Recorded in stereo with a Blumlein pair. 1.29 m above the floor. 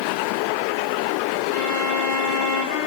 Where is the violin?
50° left, 1.0 m.